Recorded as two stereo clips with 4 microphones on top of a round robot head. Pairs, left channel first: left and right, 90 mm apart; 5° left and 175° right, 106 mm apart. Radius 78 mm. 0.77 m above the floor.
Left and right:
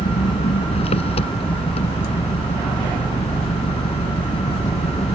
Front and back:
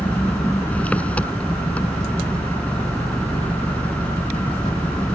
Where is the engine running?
85° left.